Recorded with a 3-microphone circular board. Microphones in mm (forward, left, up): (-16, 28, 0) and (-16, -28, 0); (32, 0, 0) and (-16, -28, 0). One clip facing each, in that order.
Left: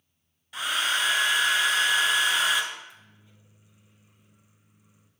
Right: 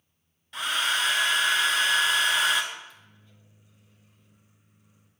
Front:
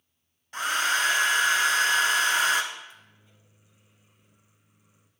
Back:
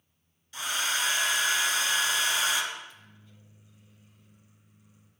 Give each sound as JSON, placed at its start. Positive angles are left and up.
{"t": 0.5, "sound": "a hair dryer", "azimuth_deg": 5, "distance_m": 0.7}
{"t": 2.7, "sound": "a microwave", "azimuth_deg": 45, "distance_m": 0.8}